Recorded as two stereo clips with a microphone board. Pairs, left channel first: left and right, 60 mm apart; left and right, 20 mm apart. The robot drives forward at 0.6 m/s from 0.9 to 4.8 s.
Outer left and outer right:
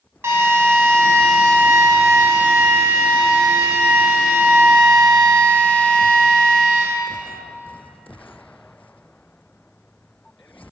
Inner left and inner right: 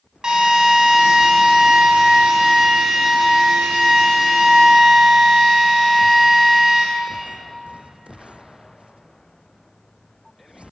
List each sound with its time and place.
0.2 s a drill: 40° right (ahead or behind), 2.5 m; by 6.8 s 20° right (ahead or behind), 4 m